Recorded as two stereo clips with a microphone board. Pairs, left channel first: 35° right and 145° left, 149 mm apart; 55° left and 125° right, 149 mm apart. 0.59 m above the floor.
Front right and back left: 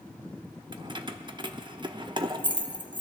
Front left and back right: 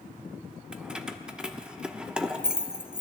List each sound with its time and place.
0.7 s keys jangling: 160° left, 0.6 m